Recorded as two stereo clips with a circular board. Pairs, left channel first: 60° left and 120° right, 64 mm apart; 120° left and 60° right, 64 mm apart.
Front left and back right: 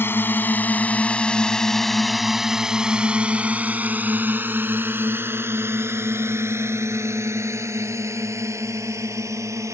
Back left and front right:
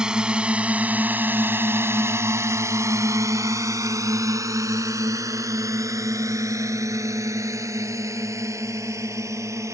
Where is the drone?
15° left; by 9.8 s 90° right.